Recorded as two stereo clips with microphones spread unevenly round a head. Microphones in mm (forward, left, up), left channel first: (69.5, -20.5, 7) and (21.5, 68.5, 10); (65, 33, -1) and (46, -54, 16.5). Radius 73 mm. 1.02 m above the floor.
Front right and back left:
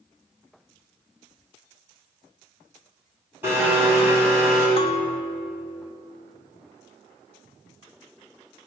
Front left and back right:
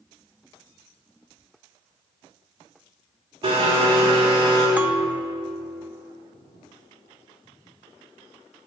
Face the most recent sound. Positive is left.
turn(degrees=-35)